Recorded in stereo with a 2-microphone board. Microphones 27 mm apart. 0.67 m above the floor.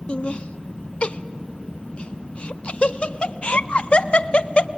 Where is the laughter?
40° left (ahead or behind), 0.6 m.